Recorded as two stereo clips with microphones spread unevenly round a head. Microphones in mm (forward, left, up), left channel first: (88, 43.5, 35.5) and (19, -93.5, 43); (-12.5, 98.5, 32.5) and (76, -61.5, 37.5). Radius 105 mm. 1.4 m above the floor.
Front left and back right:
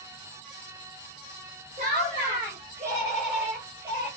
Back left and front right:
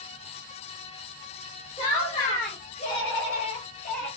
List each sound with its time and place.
1.8 s laughter: straight behind, 2 m; by 4.1 s 170° left, 3.5 m